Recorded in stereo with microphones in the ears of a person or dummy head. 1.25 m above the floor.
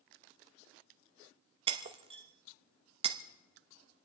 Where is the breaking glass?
30° right (ahead or behind), 0.7 m.